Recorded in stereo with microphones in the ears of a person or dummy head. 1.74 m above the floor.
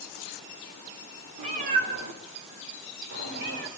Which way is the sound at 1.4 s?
40° right (ahead or behind).